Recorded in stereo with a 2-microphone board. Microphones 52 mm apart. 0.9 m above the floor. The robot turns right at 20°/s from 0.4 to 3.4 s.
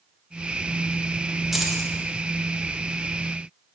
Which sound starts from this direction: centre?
Keys jangling, at 1.5 s.